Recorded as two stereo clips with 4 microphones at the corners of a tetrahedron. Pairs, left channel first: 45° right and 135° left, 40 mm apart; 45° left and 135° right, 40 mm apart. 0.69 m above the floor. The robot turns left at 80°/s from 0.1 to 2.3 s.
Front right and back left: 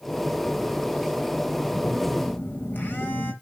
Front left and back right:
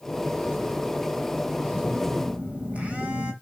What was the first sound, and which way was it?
A phone buzzing, 30° right.